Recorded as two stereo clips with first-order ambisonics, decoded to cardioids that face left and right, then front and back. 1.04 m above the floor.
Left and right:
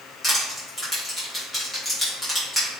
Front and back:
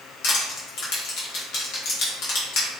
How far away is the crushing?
About 0.9 m.